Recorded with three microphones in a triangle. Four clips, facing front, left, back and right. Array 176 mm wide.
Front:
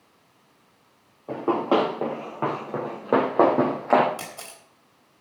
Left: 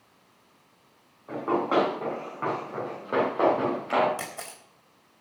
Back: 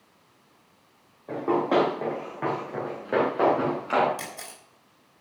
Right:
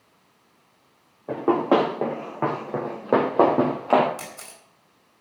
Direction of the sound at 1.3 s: 80° right.